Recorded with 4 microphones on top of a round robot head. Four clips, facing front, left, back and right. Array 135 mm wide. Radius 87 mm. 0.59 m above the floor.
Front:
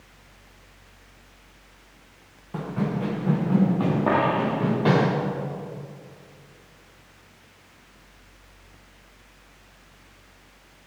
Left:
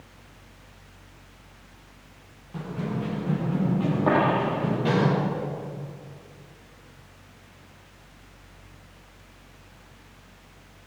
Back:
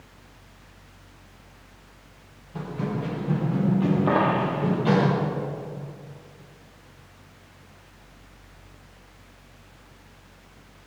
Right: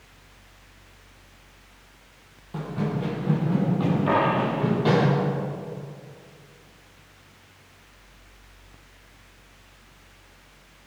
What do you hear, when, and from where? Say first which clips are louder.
2.5 s running footsteps: right 2 dB, front 2 dB; 20° right, 4.5 m; by 5.1 s 15° right, 6.5 m
4.1 s a dropped coin: left 2 dB, even; 35° left, 9 m